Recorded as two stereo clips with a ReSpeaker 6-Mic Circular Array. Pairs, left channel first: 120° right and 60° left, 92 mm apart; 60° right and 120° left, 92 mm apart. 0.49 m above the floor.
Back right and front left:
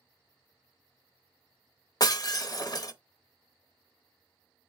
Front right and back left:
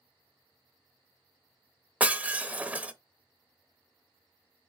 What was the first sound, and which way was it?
Breaking glass, 165° right.